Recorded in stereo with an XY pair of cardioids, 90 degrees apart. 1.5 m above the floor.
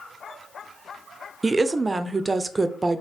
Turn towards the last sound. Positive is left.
turn(degrees=-25)